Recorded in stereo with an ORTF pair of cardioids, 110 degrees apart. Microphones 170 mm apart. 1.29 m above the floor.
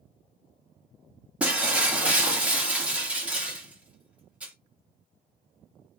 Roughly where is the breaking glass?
Ahead.